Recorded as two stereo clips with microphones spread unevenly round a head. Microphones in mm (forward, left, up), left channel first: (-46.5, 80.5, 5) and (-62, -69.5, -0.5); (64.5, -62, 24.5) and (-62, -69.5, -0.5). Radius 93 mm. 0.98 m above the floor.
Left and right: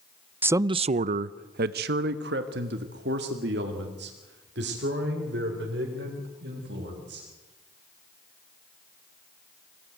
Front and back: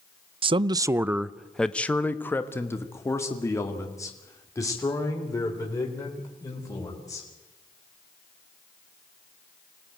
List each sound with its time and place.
0.4 s a man speaking: 170° right, 0.5 m; by 7.3 s 60° right, 4.5 m